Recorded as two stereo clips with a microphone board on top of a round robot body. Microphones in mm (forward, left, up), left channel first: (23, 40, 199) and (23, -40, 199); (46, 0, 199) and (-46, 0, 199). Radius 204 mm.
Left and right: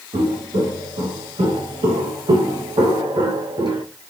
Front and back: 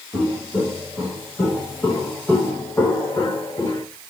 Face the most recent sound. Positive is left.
turn(degrees=-65)